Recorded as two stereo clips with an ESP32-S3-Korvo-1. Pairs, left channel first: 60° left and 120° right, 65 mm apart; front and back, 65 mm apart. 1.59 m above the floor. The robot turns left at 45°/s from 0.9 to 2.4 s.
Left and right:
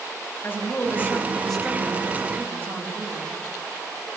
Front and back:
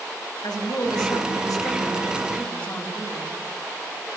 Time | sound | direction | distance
0.4 | a woman speaking | straight ahead | 8.5 m